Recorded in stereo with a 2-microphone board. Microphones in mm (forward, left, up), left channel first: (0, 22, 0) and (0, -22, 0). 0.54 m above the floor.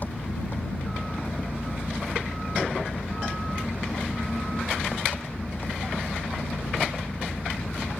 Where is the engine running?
45° left (ahead or behind).